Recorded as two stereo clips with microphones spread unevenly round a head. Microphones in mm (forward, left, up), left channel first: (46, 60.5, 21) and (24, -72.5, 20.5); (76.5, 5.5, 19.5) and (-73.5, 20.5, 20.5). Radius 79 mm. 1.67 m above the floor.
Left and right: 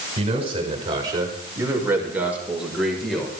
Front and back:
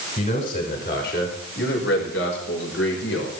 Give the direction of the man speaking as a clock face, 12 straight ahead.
2 o'clock.